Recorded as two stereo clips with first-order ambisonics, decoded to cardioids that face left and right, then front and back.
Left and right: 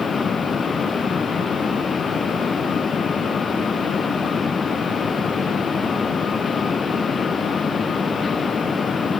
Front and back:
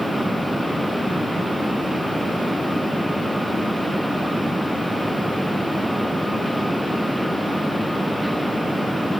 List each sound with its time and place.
Only background noise.